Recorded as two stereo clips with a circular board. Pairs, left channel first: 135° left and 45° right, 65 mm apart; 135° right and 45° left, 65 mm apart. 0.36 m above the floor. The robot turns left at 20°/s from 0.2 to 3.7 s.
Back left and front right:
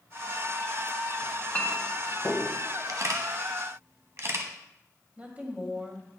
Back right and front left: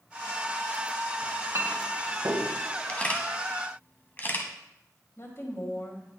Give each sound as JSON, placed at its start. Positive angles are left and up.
{"t": 1.2, "sound": "a clink", "azimuth_deg": 80, "distance_m": 1.8}
{"t": 2.9, "sound": "a camera shutter", "azimuth_deg": -65, "distance_m": 1.3}
{"t": 5.2, "sound": "a woman speaking", "azimuth_deg": -105, "distance_m": 2.0}